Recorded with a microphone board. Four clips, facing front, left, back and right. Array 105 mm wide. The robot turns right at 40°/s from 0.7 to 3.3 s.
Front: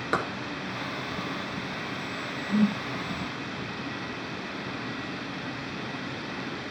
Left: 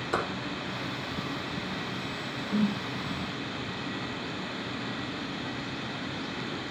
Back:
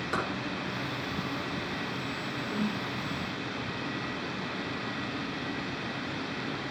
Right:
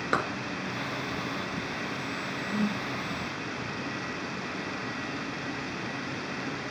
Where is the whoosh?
25° left, 4 m; by 2.8 s 35° left, 4 m.